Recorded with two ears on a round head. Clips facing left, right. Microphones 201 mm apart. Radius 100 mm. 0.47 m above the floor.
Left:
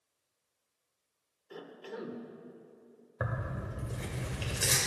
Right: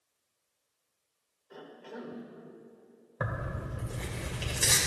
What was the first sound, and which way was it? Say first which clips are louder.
A cough: left 1 dB; 45° left (ahead or behind).